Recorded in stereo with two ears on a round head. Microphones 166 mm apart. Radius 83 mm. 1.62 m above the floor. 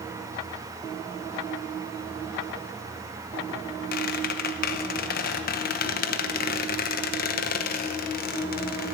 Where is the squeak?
50° left (ahead or behind), 0.9 m.